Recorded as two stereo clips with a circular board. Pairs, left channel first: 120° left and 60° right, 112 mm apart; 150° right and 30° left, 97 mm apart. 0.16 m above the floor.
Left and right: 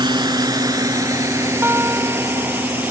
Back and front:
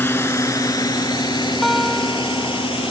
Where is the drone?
90° right; by 2.9 s 135° right.